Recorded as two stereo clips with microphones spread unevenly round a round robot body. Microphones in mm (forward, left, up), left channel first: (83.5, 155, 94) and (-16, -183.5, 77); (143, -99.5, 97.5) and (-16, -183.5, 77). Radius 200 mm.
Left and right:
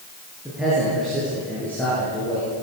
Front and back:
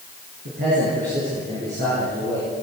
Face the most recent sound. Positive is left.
turn(degrees=155)